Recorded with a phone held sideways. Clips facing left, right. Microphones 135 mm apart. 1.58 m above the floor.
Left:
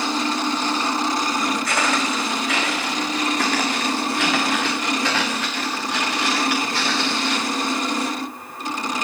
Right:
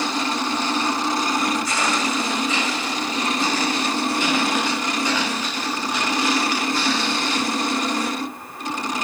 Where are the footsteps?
60° left (ahead or behind), 6 m; by 7.5 s 70° left (ahead or behind), 12 m.